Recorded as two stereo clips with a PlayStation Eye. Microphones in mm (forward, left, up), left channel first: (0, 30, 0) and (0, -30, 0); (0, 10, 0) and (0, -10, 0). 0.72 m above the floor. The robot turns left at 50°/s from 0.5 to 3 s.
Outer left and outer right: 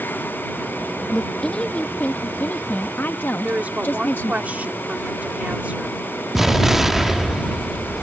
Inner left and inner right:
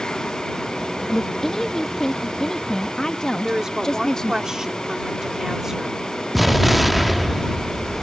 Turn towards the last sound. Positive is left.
turn(degrees=-5)  # may be behind; listen again after turning